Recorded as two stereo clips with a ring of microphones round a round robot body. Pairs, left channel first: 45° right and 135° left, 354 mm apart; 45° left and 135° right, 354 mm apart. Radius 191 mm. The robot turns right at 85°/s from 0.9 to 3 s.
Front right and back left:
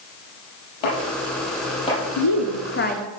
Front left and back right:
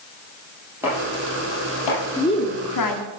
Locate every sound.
0.8 s chopping: 50° right, 7 m; by 2.0 s 45° left, 7 m
2.2 s a woman speaking: 40° right, 1.9 m; by 3.1 s 30° left, 1.9 m